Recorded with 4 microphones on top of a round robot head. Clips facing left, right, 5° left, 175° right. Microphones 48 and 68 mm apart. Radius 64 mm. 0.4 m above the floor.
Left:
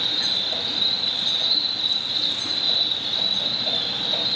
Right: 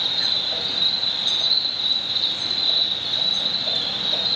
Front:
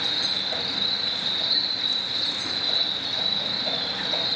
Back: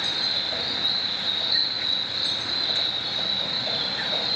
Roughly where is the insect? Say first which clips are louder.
Right 1 dB, even; left.